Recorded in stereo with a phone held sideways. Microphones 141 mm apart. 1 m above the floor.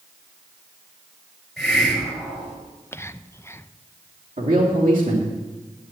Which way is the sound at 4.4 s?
70° right (ahead or behind).